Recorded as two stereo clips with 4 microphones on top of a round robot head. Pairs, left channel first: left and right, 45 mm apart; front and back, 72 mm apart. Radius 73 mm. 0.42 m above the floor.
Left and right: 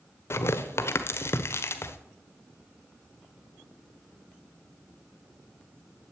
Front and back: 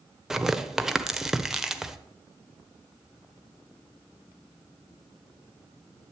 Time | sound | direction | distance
0.3 | tearing paper | 95° left | 1.2 m